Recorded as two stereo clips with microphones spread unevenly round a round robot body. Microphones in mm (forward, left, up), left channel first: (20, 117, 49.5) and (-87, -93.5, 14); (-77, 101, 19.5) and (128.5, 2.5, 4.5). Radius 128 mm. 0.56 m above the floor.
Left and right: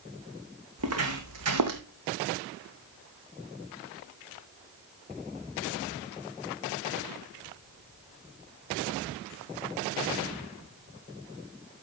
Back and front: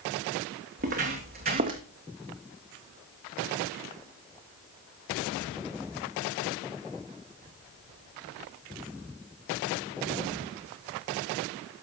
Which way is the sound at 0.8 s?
80° right.